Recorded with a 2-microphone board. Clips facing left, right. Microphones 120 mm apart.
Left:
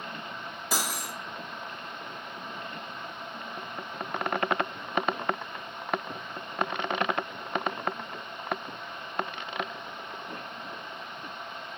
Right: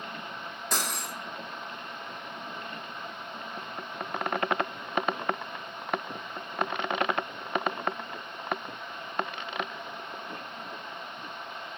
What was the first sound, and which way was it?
Cutlery clinking, 5° left (ahead or behind).